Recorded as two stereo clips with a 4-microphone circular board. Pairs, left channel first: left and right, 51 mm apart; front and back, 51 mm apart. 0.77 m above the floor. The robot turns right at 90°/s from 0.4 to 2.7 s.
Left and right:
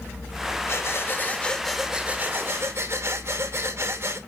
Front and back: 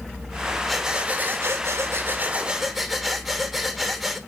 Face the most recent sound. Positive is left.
turn(degrees=-95)